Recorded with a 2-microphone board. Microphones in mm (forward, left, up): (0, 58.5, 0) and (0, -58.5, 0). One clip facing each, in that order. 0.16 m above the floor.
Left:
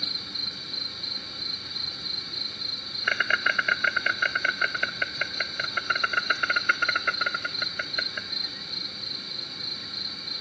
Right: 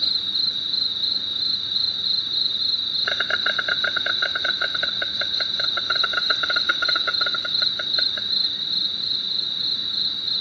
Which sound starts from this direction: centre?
An insect, at 0.0 s.